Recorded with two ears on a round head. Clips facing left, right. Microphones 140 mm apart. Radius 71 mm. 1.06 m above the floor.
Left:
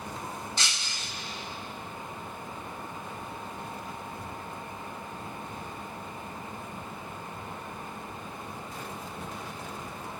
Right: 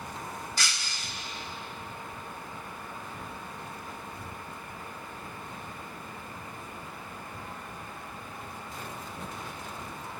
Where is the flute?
No flute in this recording.